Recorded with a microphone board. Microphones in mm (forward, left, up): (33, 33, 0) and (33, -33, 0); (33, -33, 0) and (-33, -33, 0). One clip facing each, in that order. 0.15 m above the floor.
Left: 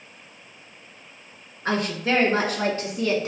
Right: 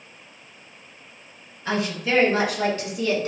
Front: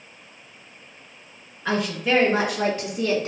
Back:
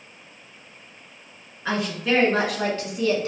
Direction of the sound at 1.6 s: 95° left.